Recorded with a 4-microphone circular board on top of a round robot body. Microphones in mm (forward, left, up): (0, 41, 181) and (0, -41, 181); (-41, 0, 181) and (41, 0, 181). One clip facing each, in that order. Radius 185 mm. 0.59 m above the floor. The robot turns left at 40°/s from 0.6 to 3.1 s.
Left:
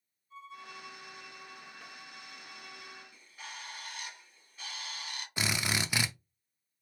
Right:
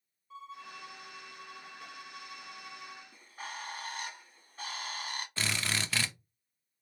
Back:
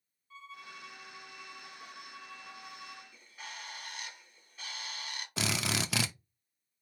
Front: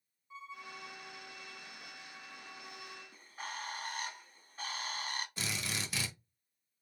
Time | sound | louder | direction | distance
0.3 | a violin | right 1 dB, front 1 dB | 75° right | 0.7 m
3.1 | a bird | right 5 dB, front 4 dB | 45° right | 1.9 m
5.4 | a drill | left 3 dB, back 6 dB | 165° left | 0.5 m